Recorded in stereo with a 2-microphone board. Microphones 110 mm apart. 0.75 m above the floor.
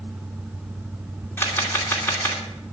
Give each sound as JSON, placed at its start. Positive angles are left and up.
{"t": 1.4, "sound": "a camera shutter", "side_deg": 20, "distance_m": 2.5}